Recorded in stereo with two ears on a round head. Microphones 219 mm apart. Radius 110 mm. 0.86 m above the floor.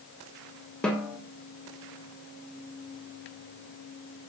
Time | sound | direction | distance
0.8 | a snare drum | 5° left (ahead or behind) | 0.8 m